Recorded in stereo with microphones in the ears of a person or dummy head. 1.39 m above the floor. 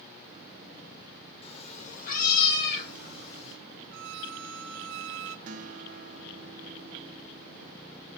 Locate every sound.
1.4 s a cat meowing: 40° left (ahead or behind), 1.7 m; by 3.6 s 75° left (ahead or behind), 3 m
3.9 s a violin: 70° right (ahead or behind), 0.7 m
5.5 s a guitar: 45° right (ahead or behind), 1.2 m